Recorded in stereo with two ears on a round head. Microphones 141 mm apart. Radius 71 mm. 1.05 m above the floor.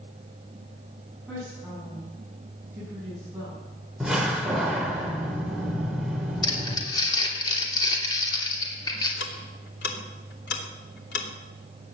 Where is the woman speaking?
5° right (ahead or behind), 8 m.